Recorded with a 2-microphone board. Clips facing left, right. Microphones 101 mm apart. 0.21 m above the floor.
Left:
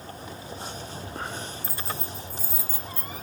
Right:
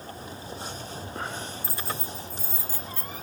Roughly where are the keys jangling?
Centre.